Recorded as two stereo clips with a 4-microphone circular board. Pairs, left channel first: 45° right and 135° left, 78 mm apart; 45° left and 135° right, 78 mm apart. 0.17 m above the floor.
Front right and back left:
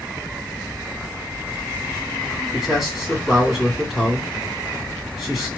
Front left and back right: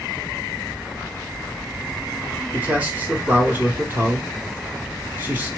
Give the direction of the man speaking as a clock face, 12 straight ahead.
5 o'clock.